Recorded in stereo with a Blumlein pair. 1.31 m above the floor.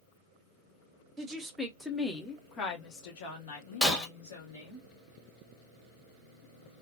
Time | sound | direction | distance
1.2 | a woman speaking | 20° right | 1.0 m
3.8 | breaking glass | 10° left | 1.4 m